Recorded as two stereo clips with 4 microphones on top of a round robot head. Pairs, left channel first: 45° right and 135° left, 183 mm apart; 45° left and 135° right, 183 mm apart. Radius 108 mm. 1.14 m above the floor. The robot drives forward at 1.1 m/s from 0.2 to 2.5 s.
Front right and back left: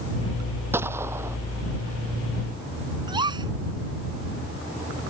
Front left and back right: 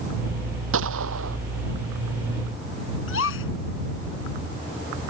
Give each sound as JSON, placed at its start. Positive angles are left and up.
{"t": 0.7, "sound": "a gunshot", "azimuth_deg": -150}
{"t": 3.1, "sound": "a gasp", "azimuth_deg": 65}